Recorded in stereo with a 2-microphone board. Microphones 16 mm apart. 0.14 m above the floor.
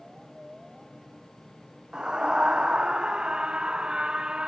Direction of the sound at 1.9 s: 55° right (ahead or behind).